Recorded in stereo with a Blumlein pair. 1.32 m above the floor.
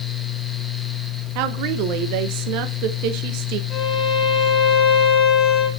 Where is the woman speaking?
45° right, 1.0 m.